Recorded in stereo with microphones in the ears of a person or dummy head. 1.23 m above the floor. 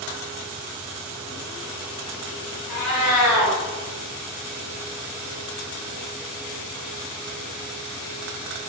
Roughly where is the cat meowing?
Left.